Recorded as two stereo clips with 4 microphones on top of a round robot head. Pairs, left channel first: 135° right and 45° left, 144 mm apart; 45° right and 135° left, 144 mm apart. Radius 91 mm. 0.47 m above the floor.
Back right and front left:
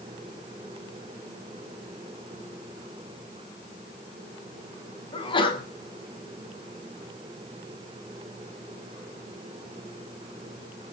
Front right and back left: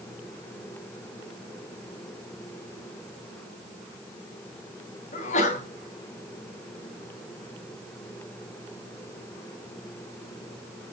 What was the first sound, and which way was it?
A sneeze, 80° right.